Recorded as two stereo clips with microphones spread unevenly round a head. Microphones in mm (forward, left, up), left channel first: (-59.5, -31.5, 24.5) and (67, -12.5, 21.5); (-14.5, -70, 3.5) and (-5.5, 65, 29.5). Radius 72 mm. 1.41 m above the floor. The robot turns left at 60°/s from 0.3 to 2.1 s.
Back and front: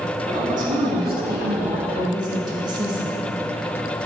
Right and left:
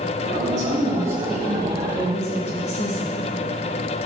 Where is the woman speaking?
55° left, 2 m; by 3.3 s 50° right, 2 m.